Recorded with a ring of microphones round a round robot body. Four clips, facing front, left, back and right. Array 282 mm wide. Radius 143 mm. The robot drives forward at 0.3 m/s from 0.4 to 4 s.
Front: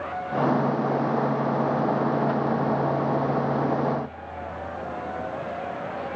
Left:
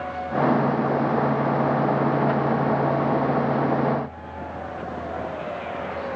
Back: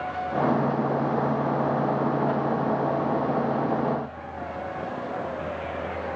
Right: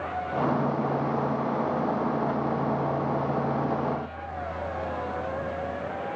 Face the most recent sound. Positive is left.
No sound to turn to.